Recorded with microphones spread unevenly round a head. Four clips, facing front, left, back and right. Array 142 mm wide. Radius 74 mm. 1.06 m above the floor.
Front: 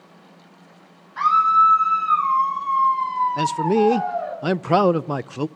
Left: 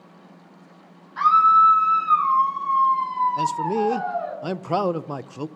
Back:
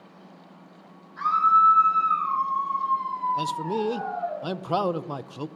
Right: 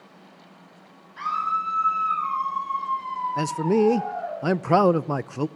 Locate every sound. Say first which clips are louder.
1.2 s a scream: left 11 dB, front 4 dB; 30° left, 7.5 m
3.4 s a man speaking: right 1 dB, front 8 dB; 35° right, 0.6 m